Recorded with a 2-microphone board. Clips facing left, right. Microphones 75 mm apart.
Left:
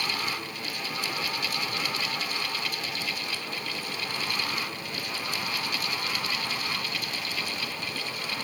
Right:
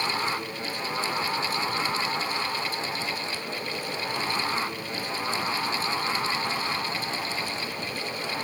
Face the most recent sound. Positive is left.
No sound to turn to.